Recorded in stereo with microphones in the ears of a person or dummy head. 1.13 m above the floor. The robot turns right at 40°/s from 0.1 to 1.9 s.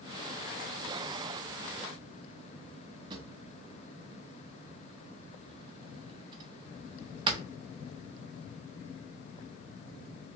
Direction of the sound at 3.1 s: 25° right (ahead or behind).